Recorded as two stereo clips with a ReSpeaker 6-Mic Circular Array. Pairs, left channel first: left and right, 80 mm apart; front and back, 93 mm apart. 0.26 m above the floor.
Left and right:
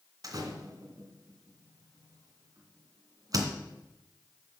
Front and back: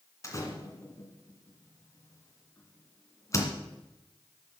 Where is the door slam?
55° right, 2.5 m.